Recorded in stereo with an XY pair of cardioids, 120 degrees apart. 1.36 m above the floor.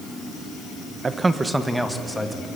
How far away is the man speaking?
About 1.4 m.